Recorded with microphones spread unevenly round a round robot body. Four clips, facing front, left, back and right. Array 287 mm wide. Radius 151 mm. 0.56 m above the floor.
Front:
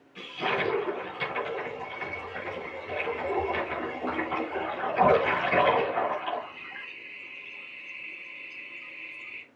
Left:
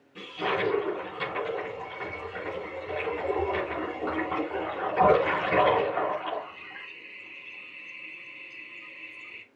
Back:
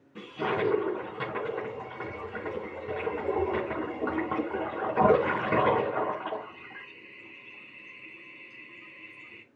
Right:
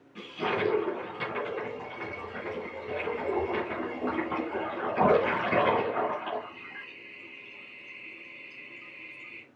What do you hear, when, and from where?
0.1 s a toilet flushing: straight behind, 4 m